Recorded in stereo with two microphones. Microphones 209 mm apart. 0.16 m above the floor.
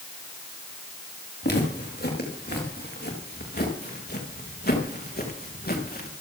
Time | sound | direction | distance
1.4 | footsteps | 50° left (ahead or behind) | 7 m